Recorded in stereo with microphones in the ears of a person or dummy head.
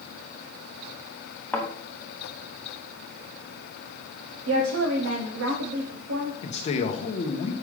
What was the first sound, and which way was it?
A thud, 10° left (ahead or behind).